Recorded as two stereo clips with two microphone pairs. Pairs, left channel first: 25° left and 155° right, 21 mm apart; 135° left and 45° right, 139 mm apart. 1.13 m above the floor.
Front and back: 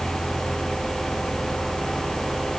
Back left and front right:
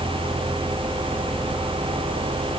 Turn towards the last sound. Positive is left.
No sound to turn to.